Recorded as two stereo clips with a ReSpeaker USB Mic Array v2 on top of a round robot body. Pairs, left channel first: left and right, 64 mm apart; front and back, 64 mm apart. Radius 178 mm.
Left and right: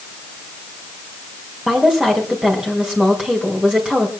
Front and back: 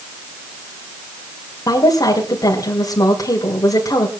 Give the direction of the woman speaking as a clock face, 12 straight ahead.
12 o'clock.